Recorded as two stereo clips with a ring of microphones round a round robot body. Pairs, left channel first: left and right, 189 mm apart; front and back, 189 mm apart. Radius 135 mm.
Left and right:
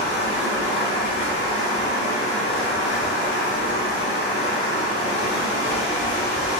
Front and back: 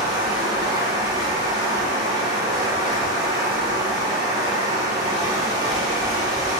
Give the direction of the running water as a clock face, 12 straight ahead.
8 o'clock.